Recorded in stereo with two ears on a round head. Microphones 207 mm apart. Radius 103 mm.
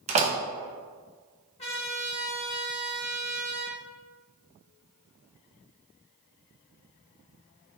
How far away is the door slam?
About 0.6 m.